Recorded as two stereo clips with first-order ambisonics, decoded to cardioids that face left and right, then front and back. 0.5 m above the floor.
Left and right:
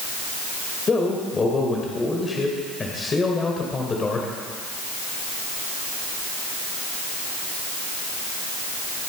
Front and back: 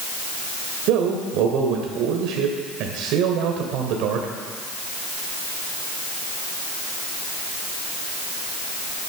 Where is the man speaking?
160° left, 2 m.